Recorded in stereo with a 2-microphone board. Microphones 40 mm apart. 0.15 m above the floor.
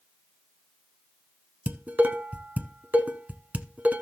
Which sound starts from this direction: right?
Dishes clattering, at 1.7 s.